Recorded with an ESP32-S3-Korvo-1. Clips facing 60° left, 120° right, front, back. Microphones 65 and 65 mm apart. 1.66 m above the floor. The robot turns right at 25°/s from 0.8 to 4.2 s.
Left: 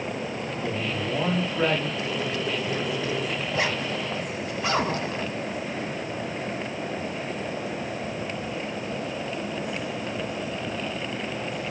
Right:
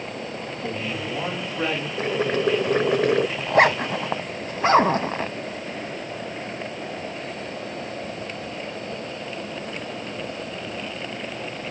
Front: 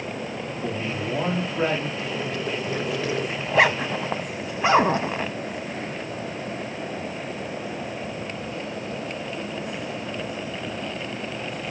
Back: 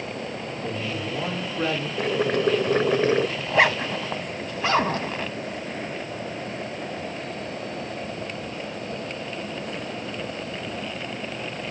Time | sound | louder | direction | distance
0.6 | a man speaking | even, front 2 dB | 25° right | 5 m
2.0 | boiling | right 6 dB, back 6 dB | 165° right | 0.5 m
3.4 | a zipper | right 9 dB, front 1 dB | 90° right | 0.7 m